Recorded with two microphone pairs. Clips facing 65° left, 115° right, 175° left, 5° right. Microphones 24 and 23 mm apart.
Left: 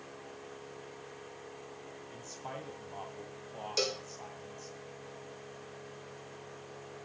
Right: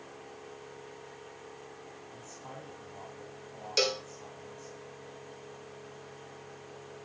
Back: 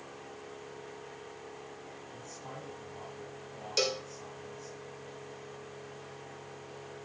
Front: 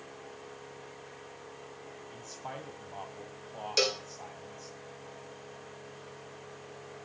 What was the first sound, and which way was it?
A man speaking, 30° left.